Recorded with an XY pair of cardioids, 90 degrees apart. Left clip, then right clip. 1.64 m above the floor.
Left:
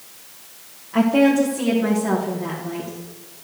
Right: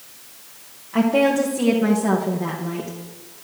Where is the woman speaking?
5° right, 1.6 m; by 2.9 s 50° right, 2 m.